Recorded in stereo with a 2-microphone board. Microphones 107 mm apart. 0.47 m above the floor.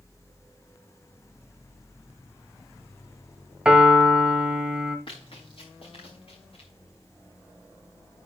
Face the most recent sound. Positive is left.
turn(degrees=55)  # may be behind; listen again after turning